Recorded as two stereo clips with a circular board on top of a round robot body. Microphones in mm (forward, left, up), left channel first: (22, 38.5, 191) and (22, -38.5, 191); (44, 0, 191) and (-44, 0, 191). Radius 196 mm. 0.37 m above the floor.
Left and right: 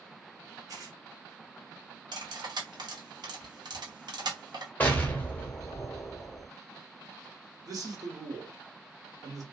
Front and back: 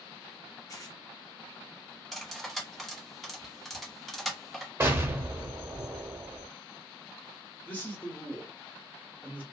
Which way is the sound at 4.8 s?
140° left.